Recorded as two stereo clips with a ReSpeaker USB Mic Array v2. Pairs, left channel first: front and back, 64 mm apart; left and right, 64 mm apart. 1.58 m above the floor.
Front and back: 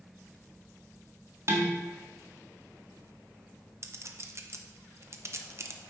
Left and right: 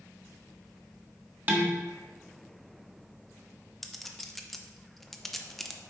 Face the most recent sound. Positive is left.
turn(degrees=175)